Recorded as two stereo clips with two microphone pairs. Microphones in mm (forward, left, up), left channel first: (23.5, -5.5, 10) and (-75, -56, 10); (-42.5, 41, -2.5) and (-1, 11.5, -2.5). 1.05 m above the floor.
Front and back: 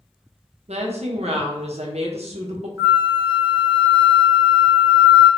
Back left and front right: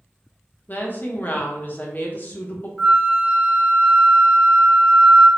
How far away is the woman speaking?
About 0.7 m.